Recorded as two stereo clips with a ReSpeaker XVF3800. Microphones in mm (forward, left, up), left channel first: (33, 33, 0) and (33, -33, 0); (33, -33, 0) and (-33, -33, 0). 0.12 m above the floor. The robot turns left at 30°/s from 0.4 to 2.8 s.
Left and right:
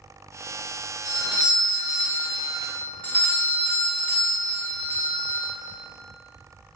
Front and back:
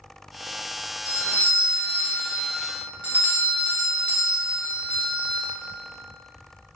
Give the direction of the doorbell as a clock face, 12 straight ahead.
6 o'clock.